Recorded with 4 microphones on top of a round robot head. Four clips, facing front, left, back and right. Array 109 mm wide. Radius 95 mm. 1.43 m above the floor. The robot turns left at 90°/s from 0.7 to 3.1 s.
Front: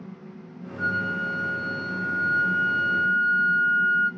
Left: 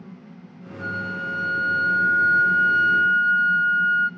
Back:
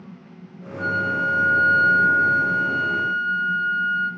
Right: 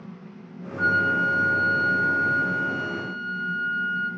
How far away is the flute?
About 2 m.